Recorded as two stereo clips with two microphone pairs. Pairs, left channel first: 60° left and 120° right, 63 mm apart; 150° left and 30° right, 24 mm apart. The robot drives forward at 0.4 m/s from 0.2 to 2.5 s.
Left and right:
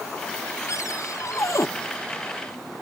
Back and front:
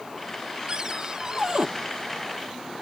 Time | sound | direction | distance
0.7 | a cupboard door | 25° left | ?